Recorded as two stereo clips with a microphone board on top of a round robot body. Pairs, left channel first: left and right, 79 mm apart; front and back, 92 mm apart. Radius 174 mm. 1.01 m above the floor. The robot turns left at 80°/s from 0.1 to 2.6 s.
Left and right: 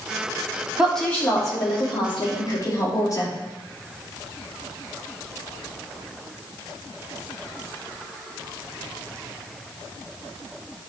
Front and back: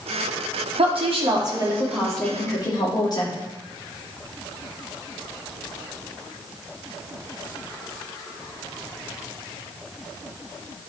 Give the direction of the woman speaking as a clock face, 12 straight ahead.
6 o'clock.